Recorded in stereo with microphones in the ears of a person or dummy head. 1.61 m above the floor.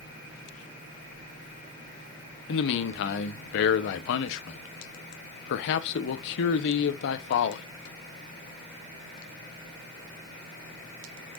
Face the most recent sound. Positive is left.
turn(degrees=60)  # may be behind; listen again after turning